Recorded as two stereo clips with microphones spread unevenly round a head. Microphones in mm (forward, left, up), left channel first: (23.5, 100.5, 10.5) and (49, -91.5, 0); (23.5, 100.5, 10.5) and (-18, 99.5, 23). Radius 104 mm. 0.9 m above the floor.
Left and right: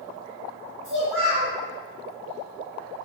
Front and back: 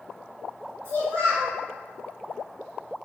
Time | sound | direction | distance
0.8 | a child speaking | 175° right | 1.8 m